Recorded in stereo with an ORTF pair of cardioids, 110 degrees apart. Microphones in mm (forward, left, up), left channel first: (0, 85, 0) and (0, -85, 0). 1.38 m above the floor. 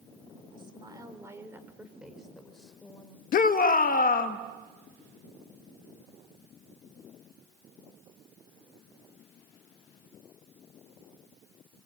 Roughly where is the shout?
Ahead left.